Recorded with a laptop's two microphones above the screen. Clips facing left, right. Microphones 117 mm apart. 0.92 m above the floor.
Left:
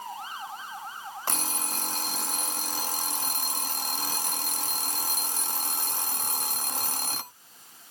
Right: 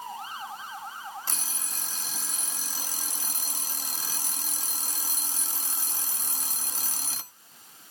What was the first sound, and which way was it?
An alarm clock, 55° left (ahead or behind).